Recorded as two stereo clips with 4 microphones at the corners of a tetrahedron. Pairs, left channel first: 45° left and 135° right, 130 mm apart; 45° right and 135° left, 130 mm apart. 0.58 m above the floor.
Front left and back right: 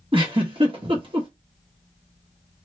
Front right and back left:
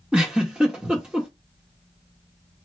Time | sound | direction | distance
0.1 | a giggle | 145° right | 1.5 m